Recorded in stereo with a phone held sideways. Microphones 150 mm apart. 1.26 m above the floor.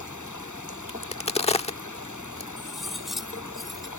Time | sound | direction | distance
0.9 | a crack | 45° left (ahead or behind) | ?
2.6 | cutlery clinking | centre (ahead or behind) | ?